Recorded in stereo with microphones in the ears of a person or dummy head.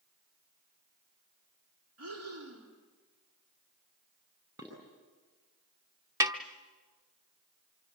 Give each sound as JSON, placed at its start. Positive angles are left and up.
{"t": 2.0, "sound": "breathing", "side_deg": -85, "distance_m": 3.5}
{"t": 4.6, "sound": "dishes clattering", "side_deg": -15, "distance_m": 8.5}
{"t": 6.2, "sound": "a snare drum", "side_deg": -15, "distance_m": 1.0}